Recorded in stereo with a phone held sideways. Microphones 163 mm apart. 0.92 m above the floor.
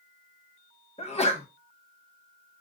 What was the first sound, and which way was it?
A sneeze, 40° left (ahead or behind).